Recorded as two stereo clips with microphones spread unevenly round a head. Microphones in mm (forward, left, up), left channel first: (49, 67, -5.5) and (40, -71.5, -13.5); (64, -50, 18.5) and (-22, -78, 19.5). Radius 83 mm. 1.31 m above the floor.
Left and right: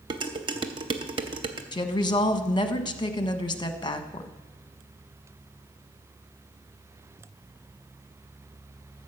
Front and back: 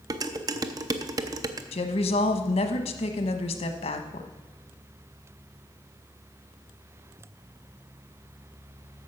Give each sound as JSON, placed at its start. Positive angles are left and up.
{"t": 0.1, "sound": "dishes clattering", "azimuth_deg": -140, "distance_m": 0.6}
{"t": 1.7, "sound": "a woman speaking", "azimuth_deg": 30, "distance_m": 1.1}